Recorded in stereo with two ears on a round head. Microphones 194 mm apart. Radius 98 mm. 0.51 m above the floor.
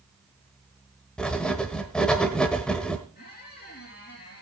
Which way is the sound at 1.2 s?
5° left (ahead or behind).